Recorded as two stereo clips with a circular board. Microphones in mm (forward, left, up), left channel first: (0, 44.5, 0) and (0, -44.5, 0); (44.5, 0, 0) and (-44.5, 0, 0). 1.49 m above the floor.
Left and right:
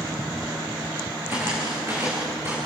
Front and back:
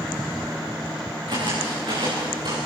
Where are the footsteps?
155° right, 8 m; by 2.6 s 150° right, 10 m.